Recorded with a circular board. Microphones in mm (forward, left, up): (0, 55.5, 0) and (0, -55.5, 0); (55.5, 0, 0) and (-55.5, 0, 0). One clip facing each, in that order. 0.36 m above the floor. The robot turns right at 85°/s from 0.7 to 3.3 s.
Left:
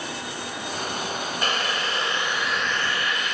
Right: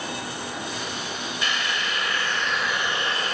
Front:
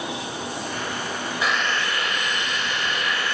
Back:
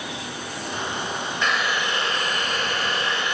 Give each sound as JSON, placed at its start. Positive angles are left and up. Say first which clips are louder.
{"t": 1.4, "sound": "boiling", "louder": "left 1 dB, even", "azimuth_deg": 80, "distance_m": 2.0}